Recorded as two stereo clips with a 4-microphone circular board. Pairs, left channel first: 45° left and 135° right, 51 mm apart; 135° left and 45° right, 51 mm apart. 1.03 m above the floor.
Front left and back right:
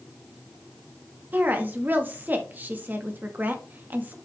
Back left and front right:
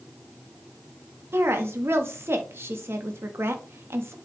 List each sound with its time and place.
1.3 s a woman speaking: 85° right, 1.4 m